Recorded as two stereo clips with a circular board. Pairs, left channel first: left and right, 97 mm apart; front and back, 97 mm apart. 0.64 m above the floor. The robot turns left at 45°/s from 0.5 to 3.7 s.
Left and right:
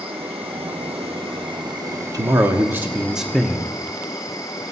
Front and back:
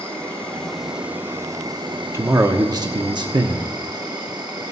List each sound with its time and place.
0.0 s an insect: 75° right, 3 m; by 4.7 s 140° left, 3 m
2.1 s a man speaking: 125° right, 0.8 m; by 3.7 s 165° left, 0.8 m